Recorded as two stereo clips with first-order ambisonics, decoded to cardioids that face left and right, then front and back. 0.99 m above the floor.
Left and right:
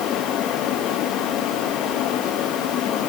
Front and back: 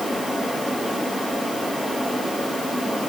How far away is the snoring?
I don't hear snoring.